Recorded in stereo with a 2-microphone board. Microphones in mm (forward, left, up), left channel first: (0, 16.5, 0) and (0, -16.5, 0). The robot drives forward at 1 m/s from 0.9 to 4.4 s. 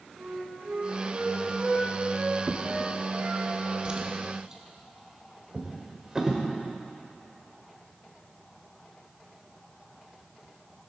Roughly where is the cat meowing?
No cat meowing in this recording.